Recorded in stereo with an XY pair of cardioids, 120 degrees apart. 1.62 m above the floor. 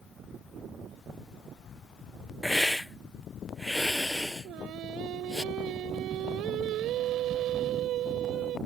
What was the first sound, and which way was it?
A hiss, 5° left.